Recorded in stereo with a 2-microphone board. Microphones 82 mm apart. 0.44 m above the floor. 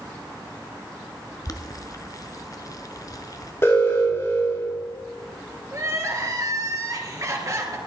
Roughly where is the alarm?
Left.